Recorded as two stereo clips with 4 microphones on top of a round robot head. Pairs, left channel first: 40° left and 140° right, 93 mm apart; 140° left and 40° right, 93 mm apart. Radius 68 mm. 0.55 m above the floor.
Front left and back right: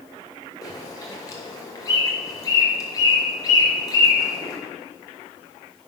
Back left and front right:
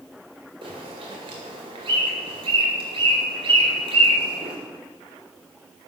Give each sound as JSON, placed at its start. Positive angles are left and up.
{"t": 0.6, "sound": "a bird", "azimuth_deg": -10, "distance_m": 2.0}